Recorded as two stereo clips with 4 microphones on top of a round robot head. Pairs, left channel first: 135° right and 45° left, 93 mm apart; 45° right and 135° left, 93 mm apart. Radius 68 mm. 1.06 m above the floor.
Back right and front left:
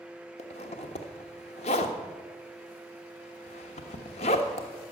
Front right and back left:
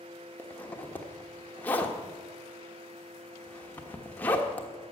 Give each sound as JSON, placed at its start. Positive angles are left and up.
{"t": 0.4, "sound": "a zipper", "azimuth_deg": -115, "distance_m": 1.2}